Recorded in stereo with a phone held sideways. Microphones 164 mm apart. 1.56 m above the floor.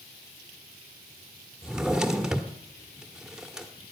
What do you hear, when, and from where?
1.6 s a drawer: 5° right (ahead or behind), 1.3 m